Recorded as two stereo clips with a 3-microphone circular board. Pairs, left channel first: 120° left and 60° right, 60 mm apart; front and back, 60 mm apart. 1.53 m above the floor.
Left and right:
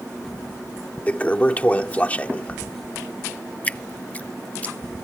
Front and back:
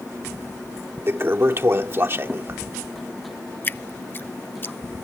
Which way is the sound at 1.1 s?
170° left.